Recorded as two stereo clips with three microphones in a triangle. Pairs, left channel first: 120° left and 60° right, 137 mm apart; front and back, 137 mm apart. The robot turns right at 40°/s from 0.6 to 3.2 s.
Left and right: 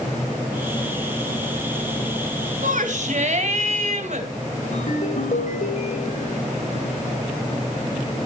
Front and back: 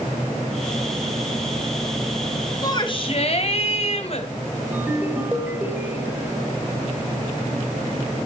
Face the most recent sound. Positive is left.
turn(degrees=105)